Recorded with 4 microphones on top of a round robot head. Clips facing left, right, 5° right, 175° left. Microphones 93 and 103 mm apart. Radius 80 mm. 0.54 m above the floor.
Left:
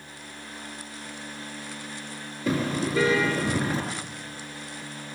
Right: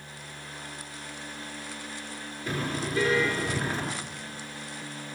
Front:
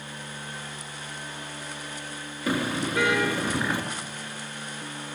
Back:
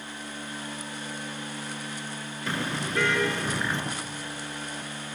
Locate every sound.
2.5 s a car horn: 75° left, 5 m